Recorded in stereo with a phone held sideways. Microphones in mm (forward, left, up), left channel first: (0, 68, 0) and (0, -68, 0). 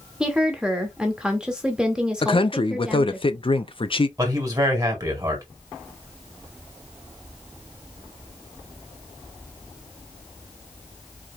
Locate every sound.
0.2 s a woman speaking: 5° right (ahead or behind), 1.0 m
2.2 s a man speaking: 45° left (ahead or behind), 0.6 m
4.2 s a man speaking: 30° right (ahead or behind), 2.0 m